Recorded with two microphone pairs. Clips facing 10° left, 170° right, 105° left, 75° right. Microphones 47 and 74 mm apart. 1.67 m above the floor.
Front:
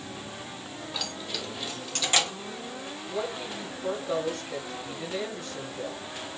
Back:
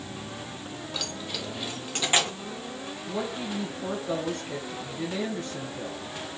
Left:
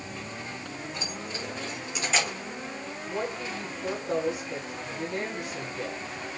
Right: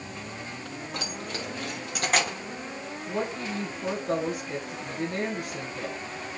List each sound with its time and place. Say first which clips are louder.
0.9 s keys jangling: even, right 1 dB; 80° right, 2.5 m; by 2.3 s 115° right, 2.5 m
3.1 s a woman speaking: back 1 dB, right 2 dB; 115° right, 2.5 m